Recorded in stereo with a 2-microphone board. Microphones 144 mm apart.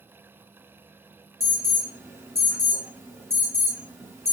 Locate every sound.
1.4 s an alarm: 20° right (ahead or behind), 2 m